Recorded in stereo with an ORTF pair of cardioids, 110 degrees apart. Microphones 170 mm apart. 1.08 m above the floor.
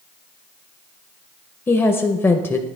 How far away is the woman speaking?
About 0.5 m.